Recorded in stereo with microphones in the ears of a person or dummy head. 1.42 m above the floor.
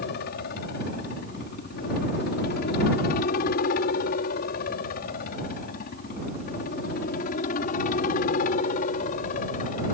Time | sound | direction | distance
0.0 | a helicopter | 55° left (ahead or behind) | ?